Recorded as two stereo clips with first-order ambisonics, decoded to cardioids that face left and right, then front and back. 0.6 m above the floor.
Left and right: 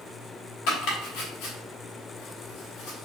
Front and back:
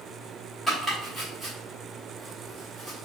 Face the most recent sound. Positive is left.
turn(degrees=100)